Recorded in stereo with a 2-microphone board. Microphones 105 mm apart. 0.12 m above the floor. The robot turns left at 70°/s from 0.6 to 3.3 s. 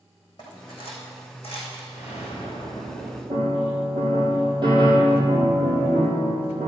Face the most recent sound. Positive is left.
turn(degrees=-45)  # may be behind; listen again after turning